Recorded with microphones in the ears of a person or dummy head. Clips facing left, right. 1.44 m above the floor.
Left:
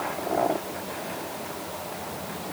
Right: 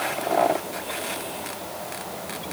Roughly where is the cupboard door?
No cupboard door in this recording.